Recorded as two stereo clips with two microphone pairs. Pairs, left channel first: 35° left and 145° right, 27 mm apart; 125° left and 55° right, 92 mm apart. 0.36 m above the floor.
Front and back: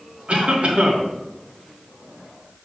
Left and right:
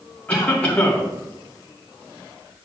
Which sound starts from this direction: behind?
A cough, at 0.3 s.